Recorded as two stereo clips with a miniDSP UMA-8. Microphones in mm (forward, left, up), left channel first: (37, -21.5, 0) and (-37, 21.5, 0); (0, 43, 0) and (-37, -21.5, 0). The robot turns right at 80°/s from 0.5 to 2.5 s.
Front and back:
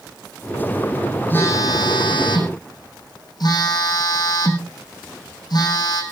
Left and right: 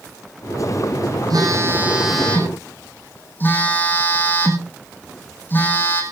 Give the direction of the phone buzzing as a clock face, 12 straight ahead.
3 o'clock.